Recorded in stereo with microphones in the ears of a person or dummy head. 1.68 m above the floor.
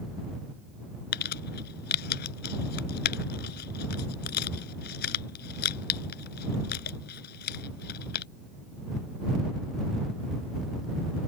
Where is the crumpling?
55° left (ahead or behind).